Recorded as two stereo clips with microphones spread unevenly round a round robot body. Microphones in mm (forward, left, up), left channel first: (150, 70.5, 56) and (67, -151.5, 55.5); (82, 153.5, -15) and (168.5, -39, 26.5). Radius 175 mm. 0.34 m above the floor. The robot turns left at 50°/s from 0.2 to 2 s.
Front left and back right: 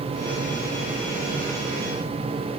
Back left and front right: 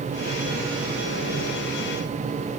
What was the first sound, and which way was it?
Only background noise.